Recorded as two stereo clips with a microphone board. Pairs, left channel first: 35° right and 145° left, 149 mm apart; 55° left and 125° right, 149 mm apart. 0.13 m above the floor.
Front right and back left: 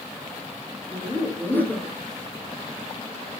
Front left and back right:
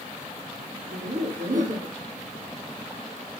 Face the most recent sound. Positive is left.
turn(degrees=-110)